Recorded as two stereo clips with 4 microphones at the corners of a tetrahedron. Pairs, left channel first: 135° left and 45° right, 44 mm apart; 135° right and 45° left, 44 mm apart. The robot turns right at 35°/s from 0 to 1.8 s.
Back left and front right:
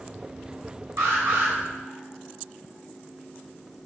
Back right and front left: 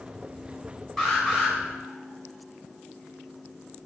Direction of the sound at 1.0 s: 55° right.